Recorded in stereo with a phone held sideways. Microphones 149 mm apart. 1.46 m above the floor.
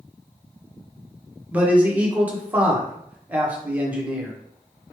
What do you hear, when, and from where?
1.5 s a man speaking: 10° right (ahead or behind), 1.1 m